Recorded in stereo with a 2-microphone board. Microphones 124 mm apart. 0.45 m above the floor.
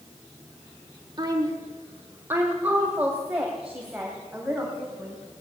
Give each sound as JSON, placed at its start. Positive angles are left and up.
{"t": 1.2, "sound": "a woman speaking", "side_deg": -35, "distance_m": 1.3}